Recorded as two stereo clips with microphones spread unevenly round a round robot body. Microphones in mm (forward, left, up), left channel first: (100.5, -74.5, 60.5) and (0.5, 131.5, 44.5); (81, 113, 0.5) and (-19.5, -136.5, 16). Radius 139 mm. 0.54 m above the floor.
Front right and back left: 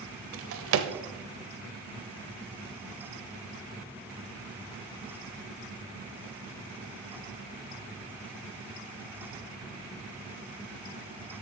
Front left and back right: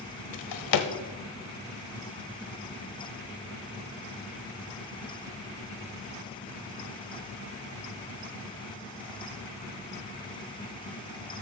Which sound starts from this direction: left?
A drawer, at 0.3 s.